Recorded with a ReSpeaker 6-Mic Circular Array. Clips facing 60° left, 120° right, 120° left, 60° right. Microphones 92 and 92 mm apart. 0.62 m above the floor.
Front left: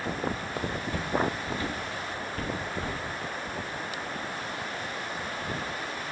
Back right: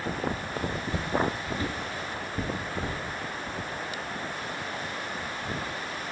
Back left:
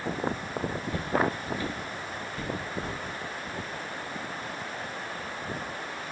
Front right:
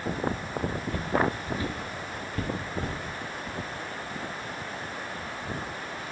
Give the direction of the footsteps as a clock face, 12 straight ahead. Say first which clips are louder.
Even, front right 1 dB; 6 o'clock.